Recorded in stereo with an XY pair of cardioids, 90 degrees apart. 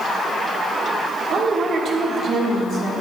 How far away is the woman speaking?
About 1.8 m.